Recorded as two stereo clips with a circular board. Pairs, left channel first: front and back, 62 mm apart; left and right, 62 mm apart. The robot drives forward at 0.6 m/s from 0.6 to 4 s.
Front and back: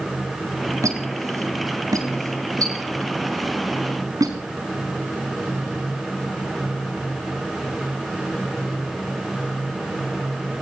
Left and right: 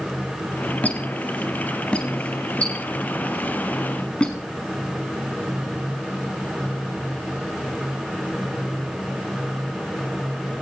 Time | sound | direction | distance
0.8 | a squeak | 155° left | 3.5 m